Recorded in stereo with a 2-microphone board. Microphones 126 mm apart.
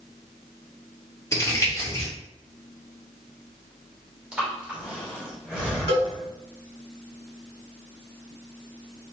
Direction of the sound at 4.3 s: 5° right (ahead or behind).